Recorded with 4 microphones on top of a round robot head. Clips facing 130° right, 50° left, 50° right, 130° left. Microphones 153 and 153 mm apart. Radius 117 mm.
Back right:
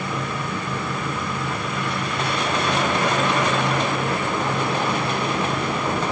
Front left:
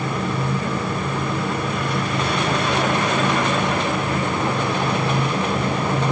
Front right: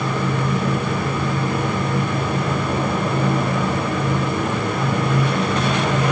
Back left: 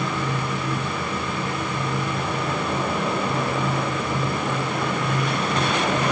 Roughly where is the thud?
I don't hear a thud.